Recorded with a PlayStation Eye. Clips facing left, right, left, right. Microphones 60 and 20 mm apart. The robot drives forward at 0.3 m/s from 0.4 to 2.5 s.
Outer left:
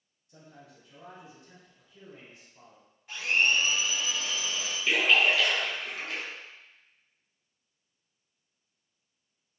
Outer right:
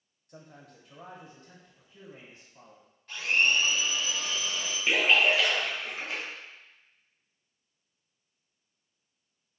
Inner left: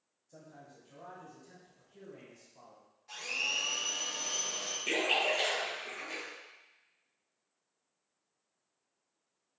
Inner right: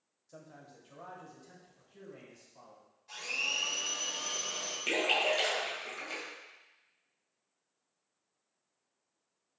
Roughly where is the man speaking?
Right.